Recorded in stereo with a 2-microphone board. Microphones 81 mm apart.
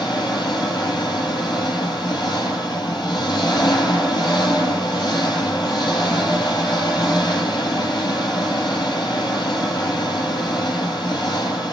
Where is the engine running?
60° left (ahead or behind), 4.5 m.